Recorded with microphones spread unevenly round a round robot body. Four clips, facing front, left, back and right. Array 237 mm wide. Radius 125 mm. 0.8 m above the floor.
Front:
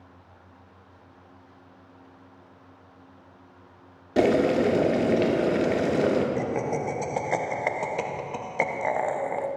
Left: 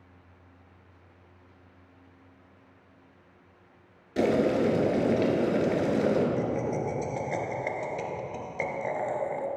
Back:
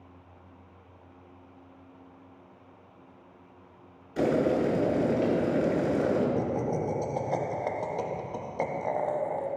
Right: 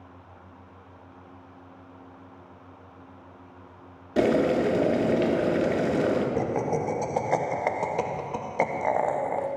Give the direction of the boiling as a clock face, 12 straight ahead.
1 o'clock.